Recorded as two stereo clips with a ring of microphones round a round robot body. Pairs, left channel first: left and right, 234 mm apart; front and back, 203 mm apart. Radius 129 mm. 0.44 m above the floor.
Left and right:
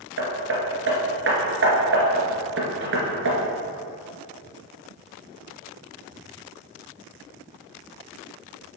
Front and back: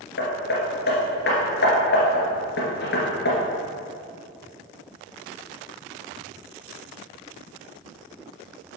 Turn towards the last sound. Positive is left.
turn(degrees=-50)